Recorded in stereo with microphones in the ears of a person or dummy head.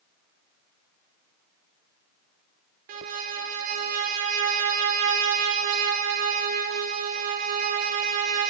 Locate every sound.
2.9 s a violin: 40° right (ahead or behind), 1.4 m